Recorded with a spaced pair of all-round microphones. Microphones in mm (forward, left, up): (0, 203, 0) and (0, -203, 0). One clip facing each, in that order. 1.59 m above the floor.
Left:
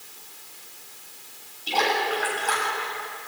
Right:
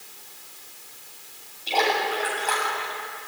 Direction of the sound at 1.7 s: 25° left (ahead or behind).